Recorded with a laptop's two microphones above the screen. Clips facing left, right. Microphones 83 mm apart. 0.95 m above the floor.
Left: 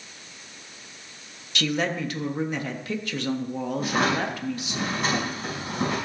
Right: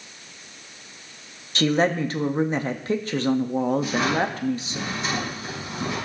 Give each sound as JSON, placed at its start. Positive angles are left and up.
{"t": 1.6, "sound": "a woman speaking", "side_deg": -35, "distance_m": 1.5}
{"t": 3.8, "sound": "a drawer", "side_deg": 60, "distance_m": 5.0}